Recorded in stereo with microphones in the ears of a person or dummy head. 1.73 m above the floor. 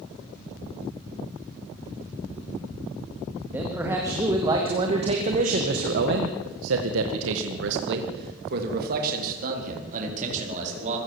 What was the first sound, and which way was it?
A man speaking, 10° right (ahead or behind).